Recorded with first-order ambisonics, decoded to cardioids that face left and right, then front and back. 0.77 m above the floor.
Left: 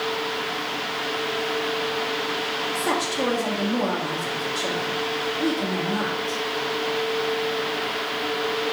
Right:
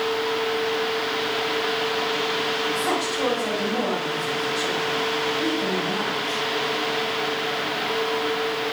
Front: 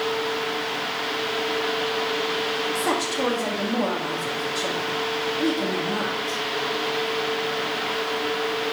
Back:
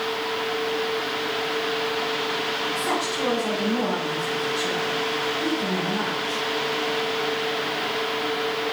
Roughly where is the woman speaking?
Ahead left.